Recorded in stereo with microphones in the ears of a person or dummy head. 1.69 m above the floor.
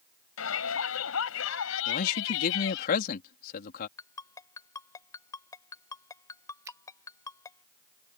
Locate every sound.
0.4 s a shout: 70° left (ahead or behind); by 2.9 s 65° left (ahead or behind)
1.9 s a man speaking: 55° left (ahead or behind)
4.0 s a ringtone: 10° left (ahead or behind)
6.7 s a finger snap: 15° right (ahead or behind)